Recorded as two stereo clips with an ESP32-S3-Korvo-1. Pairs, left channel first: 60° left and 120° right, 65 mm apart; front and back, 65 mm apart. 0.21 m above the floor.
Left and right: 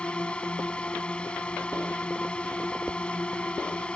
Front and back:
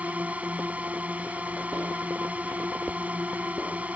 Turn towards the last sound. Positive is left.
turn(degrees=125)